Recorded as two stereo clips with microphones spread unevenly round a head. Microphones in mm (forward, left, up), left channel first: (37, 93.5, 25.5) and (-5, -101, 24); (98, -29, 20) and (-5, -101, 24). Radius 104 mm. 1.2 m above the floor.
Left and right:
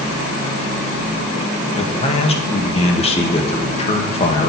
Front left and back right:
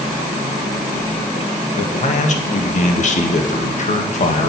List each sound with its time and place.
1.8 s a man speaking: 15° left, 1.7 m